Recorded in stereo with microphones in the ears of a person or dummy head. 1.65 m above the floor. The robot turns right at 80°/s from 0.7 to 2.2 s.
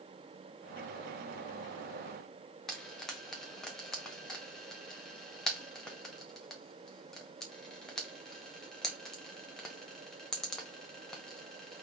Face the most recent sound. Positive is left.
turn(degrees=0)  # may be behind; listen again after turning